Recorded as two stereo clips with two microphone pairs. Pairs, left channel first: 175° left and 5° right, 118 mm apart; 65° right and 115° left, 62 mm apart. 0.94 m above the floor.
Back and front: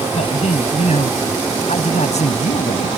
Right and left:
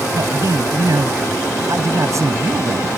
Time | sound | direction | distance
0.1 | a man speaking | 145° left | ?